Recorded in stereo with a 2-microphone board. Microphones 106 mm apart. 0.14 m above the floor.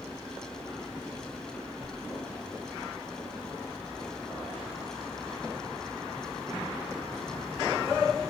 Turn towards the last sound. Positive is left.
turn(degrees=-30)  # may be behind; listen again after turning